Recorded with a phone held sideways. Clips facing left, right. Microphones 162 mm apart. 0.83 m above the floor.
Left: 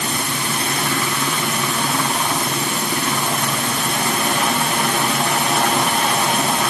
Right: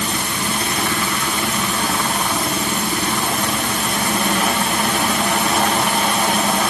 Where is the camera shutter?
I don't hear a camera shutter.